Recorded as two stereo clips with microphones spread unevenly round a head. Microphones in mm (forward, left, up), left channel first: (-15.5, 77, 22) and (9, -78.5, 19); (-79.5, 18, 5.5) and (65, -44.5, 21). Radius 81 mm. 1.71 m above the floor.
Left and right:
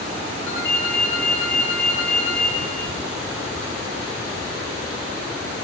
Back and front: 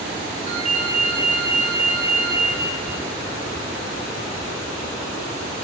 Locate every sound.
0.5 s a ringtone: 25° left, 7.5 m